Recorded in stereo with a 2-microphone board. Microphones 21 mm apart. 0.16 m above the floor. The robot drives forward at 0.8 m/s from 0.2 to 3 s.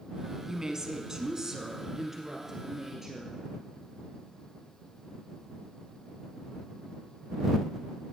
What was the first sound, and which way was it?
A woman speaking, 30° right (ahead or behind).